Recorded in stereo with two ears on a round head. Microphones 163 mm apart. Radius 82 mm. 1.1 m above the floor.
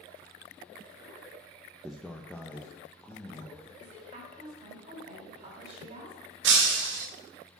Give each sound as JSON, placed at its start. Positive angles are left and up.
{"t": 1.8, "sound": "a man speaking", "side_deg": -5, "distance_m": 0.6}
{"t": 3.8, "sound": "a woman speaking", "side_deg": -35, "distance_m": 3.5}
{"t": 6.4, "sound": "breaking glass", "side_deg": -70, "distance_m": 1.4}